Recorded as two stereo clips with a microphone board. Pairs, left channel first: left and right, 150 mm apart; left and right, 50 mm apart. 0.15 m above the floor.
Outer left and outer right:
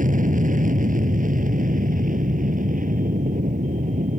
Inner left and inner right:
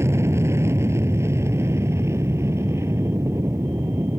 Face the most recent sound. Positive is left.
turn(degrees=-65)  # may be behind; listen again after turning